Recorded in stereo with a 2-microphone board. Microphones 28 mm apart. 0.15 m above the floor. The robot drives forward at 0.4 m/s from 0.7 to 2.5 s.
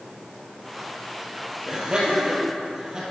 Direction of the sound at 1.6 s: 30° right (ahead or behind).